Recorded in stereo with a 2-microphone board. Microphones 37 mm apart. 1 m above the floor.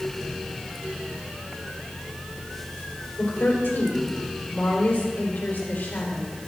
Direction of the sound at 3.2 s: 55° left (ahead or behind).